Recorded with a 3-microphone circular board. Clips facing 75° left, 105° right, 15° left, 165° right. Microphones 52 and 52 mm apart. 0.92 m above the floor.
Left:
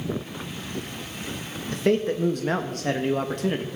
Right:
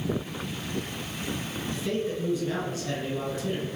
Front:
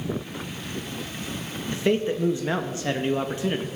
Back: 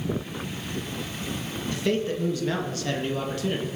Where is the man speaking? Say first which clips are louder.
Left 8 dB, front 3 dB; 80° left, 1.1 m.